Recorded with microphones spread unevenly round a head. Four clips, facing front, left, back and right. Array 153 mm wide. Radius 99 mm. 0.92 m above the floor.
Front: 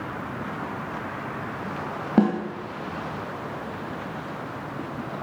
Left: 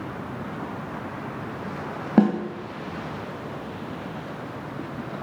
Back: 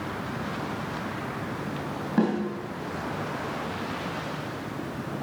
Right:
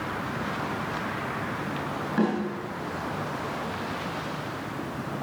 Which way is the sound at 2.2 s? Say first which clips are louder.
Left 6 dB, front 4 dB; 70° left.